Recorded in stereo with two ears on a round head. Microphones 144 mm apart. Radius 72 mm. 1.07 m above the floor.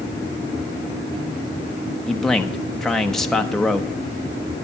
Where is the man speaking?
5° left (ahead or behind), 1.0 m.